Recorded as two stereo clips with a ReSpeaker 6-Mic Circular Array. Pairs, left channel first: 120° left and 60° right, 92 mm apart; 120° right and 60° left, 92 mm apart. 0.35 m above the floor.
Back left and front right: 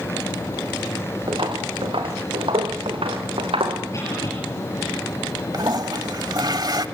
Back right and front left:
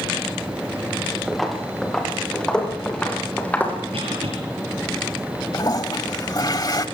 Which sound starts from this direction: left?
A cough, at 3.9 s.